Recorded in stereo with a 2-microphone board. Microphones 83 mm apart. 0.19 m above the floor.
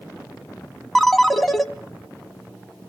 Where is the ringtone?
5° left (ahead or behind), 0.7 m.